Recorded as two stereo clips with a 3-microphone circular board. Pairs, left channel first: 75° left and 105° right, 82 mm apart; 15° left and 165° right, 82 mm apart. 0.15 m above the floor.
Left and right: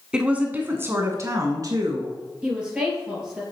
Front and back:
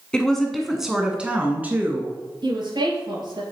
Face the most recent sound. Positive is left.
turn(degrees=175)